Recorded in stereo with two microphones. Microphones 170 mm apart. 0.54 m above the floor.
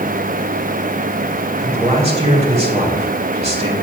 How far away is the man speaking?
About 1.9 m.